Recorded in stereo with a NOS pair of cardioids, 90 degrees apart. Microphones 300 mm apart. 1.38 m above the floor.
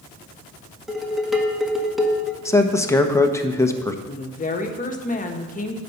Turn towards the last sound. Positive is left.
turn(degrees=25)